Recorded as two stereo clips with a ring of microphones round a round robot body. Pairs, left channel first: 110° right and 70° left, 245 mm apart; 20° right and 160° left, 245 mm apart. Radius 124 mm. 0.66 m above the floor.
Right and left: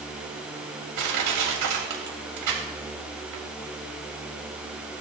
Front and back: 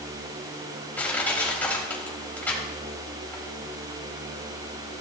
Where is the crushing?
60° left, 3.5 m.